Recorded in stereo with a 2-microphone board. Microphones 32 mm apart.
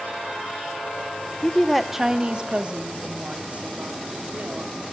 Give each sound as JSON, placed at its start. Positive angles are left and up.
{"t": 1.4, "sound": "a woman speaking", "side_deg": 25, "distance_m": 0.7}